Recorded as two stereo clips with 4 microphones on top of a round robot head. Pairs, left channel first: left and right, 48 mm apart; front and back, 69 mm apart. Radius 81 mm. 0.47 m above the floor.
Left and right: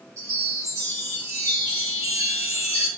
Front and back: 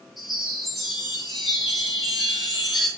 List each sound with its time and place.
0.2 s a chime: 90° right, 8.5 m